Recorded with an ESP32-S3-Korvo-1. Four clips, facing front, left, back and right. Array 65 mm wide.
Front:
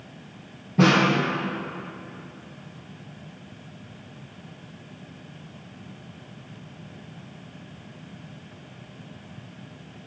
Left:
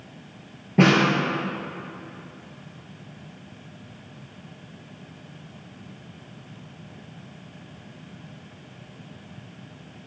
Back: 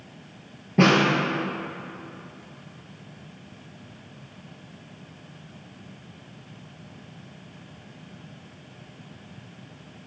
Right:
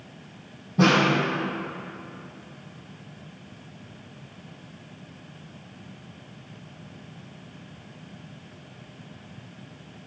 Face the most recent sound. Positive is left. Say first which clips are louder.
# left 2 dB, even
turn(degrees=120)